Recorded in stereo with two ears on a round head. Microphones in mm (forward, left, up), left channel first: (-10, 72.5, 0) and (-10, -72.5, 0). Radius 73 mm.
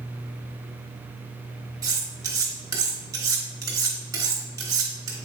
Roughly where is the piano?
I don't hear a piano.